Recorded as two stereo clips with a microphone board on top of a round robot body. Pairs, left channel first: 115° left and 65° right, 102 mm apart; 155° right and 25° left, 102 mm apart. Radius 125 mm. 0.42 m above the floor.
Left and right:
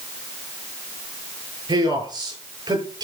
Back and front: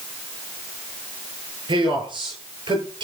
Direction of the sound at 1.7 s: 20° right.